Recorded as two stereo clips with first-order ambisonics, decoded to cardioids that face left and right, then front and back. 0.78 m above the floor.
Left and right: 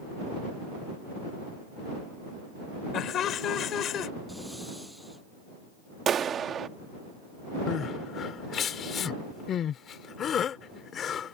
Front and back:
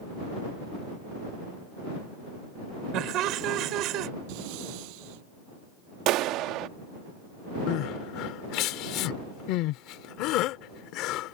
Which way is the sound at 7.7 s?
30° left.